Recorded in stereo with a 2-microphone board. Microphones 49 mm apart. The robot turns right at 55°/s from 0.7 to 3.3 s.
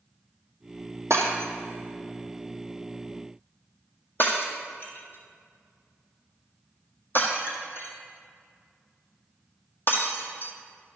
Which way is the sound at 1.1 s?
75° right (ahead or behind).